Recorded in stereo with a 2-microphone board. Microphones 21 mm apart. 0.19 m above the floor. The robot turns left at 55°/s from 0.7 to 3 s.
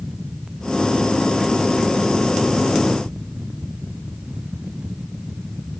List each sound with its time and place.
Only background noise.